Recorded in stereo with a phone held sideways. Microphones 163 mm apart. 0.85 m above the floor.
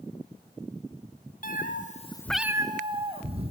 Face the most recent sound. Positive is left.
turn(degrees=-40)  # may be behind; listen again after turning